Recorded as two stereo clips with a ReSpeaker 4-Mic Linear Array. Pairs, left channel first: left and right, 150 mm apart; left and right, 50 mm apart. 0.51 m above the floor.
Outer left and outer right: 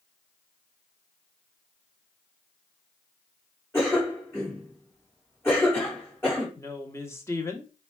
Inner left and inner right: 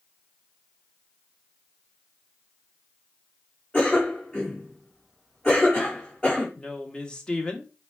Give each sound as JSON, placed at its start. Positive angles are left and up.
{"t": 3.7, "sound": "a cough", "side_deg": 15, "distance_m": 1.9}
{"t": 6.6, "sound": "a woman speaking", "side_deg": 20, "distance_m": 0.8}